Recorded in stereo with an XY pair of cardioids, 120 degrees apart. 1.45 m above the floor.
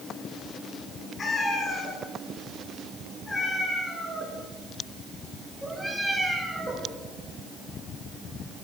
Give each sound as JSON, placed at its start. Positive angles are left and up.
{"t": 1.2, "sound": "a cat meowing", "azimuth_deg": 35, "distance_m": 7.0}